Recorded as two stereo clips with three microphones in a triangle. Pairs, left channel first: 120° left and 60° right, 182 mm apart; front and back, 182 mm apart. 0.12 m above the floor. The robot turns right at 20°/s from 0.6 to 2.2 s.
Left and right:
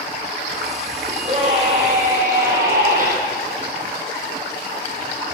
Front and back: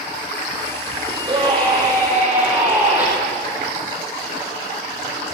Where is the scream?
120° right, 5.5 m; by 3.1 s 100° right, 5.5 m.